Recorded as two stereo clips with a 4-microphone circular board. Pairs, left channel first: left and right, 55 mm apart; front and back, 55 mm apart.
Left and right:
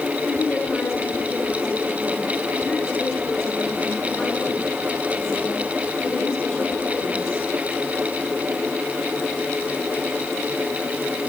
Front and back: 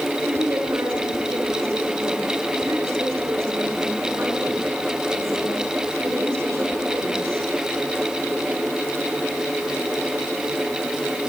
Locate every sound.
0.3 s a woman speaking: 135° left, 6.5 m